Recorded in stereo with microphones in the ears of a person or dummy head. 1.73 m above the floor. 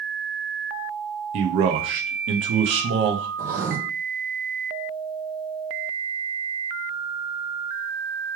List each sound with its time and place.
1.3 s a man speaking: 30° right (ahead or behind), 0.5 m
3.4 s writing: 25° right (ahead or behind), 1.0 m